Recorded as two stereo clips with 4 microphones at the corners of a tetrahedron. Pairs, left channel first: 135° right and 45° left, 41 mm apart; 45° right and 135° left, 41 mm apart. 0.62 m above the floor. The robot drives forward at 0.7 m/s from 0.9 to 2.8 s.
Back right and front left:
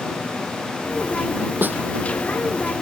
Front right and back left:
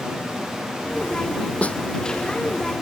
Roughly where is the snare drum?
Ahead.